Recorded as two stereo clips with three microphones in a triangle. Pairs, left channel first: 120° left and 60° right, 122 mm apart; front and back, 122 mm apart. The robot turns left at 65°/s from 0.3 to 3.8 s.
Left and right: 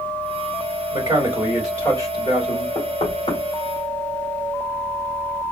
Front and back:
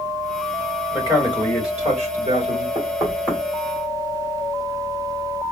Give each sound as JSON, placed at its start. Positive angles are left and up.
{"t": 0.9, "sound": "a man speaking", "azimuth_deg": -105, "distance_m": 3.0}
{"t": 2.8, "sound": "knocking", "azimuth_deg": 140, "distance_m": 3.0}